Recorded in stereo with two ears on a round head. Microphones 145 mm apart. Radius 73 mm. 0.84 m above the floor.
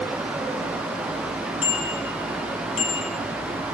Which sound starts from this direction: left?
A bicycle bell, at 1.6 s.